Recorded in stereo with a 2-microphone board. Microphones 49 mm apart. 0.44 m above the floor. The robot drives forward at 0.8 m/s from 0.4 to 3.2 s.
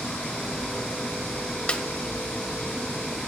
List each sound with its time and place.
1.7 s a snare drum: 25° left (ahead or behind), 0.6 m; by 1.8 s 30° left (ahead or behind), 0.5 m